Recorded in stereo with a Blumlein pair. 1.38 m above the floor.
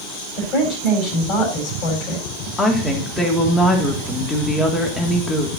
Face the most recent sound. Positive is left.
turn(degrees=15)